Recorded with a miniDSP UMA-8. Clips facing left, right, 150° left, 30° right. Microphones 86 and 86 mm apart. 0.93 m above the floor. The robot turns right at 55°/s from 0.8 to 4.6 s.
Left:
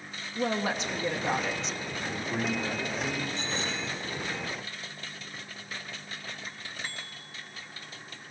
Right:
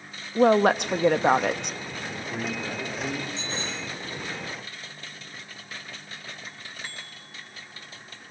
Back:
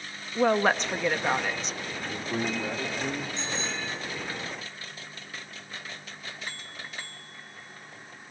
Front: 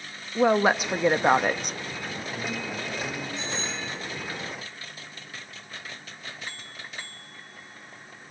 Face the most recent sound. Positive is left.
turn(degrees=120)